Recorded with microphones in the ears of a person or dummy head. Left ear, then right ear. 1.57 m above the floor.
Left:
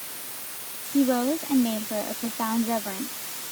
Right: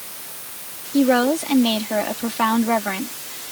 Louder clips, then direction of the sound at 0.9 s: Right 6 dB; 70° right (ahead or behind).